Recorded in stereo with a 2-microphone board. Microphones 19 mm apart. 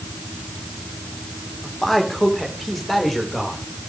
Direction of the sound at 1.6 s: 15° left (ahead or behind).